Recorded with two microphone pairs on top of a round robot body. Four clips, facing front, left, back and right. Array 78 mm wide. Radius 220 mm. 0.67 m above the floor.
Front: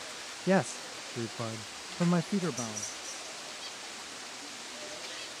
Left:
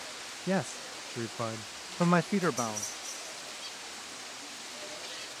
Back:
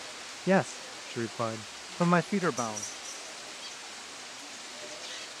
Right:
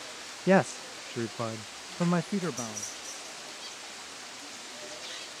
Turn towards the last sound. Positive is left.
turn(degrees=140)